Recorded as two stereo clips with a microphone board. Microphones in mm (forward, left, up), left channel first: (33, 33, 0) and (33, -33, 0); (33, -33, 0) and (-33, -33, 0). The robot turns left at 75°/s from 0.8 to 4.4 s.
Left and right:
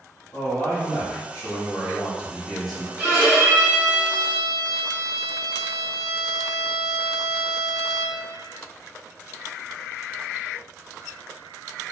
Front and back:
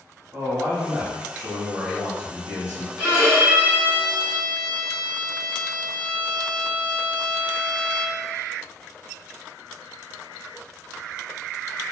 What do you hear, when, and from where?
0.3 s a man speaking: 135° left, 1.2 m; by 2.9 s 20° right, 1.2 m
3.0 s a violin: 115° right, 1.0 m; by 8.2 s 140° left, 1.0 m